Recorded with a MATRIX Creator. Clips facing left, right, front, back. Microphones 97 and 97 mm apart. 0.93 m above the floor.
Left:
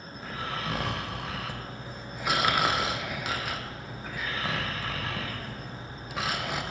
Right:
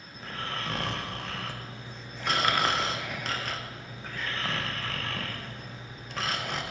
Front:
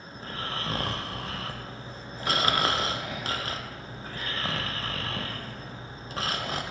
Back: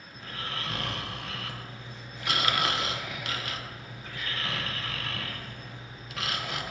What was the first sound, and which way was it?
Snoring, 10° left.